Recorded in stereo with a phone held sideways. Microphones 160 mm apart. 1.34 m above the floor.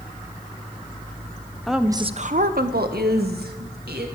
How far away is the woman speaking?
About 0.7 m.